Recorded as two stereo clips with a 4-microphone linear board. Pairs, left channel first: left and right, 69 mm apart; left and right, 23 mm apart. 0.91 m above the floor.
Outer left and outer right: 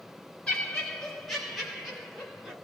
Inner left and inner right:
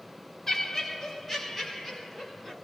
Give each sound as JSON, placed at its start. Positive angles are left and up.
{"t": 0.5, "sound": "laughter", "side_deg": 10, "distance_m": 1.0}